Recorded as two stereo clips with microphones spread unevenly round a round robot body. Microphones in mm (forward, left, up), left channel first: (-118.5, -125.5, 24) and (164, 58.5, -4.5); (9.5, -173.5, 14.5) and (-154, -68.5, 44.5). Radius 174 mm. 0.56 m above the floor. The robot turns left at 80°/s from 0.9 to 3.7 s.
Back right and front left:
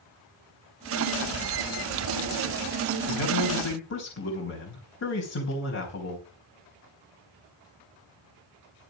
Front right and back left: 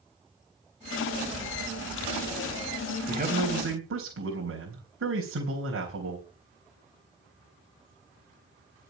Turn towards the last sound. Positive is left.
turn(degrees=160)